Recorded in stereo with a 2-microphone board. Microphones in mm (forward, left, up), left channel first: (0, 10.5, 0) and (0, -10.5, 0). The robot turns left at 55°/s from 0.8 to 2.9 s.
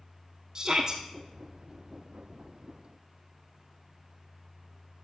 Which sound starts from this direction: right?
A shout, at 0.6 s.